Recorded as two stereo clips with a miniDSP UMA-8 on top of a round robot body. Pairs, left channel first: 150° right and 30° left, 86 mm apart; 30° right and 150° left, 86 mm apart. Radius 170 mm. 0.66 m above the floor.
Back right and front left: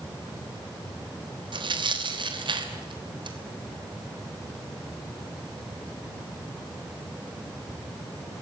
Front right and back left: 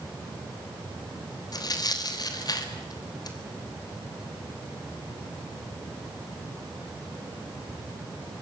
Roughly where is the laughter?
No laughter in this recording.